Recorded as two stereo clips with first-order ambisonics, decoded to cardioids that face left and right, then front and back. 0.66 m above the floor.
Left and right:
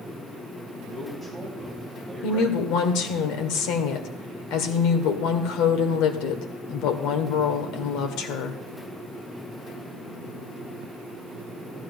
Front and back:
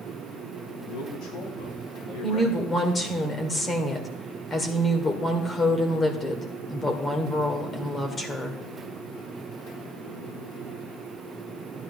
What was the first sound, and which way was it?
A man speaking, 5° left.